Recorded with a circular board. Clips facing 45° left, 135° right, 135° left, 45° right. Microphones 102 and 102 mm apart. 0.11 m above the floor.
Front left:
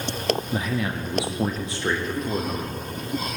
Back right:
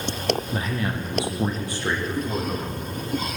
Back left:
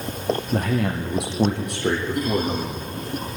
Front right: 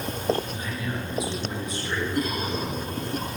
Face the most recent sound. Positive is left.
turn(degrees=110)